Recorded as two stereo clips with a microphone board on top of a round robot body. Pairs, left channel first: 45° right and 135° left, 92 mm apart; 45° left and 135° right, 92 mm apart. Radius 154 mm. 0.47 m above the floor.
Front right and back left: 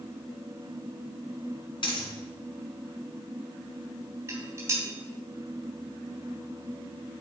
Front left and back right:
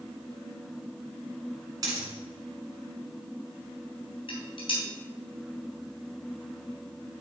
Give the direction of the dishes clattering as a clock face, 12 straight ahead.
10 o'clock.